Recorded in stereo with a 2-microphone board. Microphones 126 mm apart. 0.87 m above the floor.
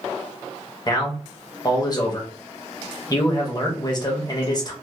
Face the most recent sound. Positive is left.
turn(degrees=35)  # may be behind; listen again after turning